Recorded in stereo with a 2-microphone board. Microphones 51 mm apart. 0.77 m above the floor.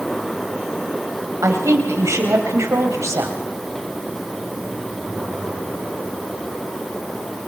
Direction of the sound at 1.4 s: 80° right.